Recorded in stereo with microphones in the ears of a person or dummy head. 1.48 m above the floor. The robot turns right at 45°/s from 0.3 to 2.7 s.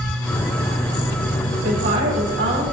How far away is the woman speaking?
About 6.5 m.